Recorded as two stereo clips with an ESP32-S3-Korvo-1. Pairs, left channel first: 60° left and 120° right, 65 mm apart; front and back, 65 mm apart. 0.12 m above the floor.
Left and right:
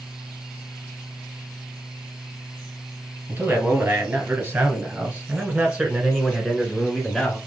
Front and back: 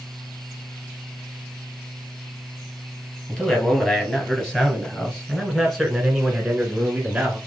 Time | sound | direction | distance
3.3 | a man speaking | 70° right | 2.5 m